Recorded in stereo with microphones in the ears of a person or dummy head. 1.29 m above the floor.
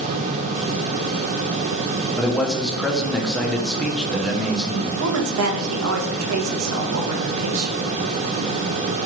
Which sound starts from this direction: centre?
A man speaking, at 2.1 s.